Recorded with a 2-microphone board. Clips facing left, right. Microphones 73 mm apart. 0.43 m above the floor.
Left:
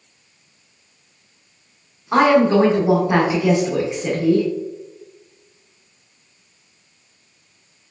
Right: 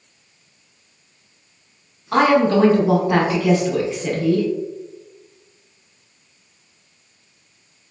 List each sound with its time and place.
2.1 s a woman speaking: 15° left (ahead or behind), 0.8 m